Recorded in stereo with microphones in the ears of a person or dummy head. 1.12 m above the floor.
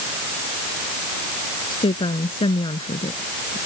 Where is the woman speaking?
30° left (ahead or behind).